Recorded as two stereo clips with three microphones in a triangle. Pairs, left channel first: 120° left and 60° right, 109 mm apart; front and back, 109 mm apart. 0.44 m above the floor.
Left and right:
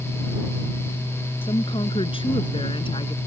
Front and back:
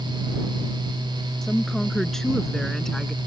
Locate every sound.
1.4 s a woman speaking: 85° left